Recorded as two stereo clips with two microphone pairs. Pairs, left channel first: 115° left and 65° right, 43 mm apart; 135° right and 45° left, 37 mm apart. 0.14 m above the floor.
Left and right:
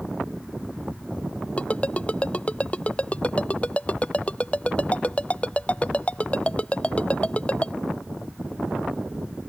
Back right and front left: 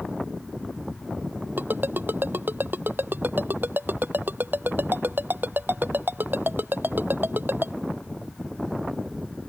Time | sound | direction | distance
1.6 | a ringtone | 55° left | ?